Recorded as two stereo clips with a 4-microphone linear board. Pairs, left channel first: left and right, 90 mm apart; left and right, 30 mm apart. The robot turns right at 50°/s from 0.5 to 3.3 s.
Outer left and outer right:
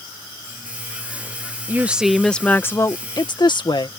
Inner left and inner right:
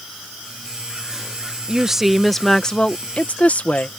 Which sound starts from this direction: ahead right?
A woman speaking, at 1.7 s.